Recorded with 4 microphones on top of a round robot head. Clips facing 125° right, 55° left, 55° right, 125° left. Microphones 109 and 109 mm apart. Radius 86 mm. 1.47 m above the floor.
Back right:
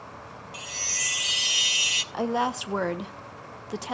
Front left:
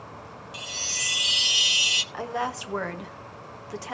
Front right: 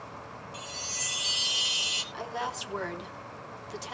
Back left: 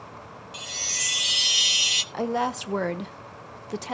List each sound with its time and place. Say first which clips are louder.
0.5 s a chime: even, back left 1 dB; 120° left, 0.9 m
2.1 s a woman speaking: back right 4 dB, back left 9 dB; 165° left, 1.3 m